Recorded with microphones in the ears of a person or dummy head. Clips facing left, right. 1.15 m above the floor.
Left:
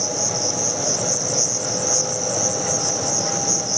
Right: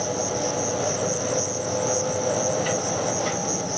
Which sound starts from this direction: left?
An insect, at 0.0 s.